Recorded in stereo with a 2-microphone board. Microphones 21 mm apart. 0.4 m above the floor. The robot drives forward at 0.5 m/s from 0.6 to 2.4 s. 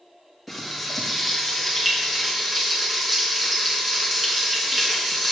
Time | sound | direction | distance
0.5 | frying | 5° right (ahead or behind) | 3 m